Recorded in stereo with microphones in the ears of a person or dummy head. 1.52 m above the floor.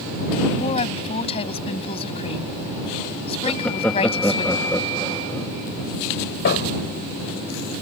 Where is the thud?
60° left (ahead or behind).